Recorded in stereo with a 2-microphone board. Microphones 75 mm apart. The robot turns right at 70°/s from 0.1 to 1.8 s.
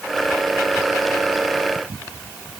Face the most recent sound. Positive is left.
No sound to turn to.